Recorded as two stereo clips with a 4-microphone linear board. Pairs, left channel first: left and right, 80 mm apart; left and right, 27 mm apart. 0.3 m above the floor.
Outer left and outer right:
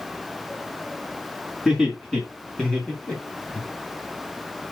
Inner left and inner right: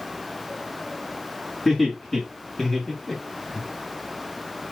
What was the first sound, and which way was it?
Laughter, 5° left (ahead or behind).